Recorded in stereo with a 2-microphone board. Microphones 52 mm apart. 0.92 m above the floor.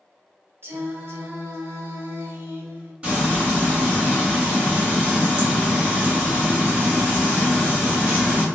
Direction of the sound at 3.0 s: 20° right (ahead or behind).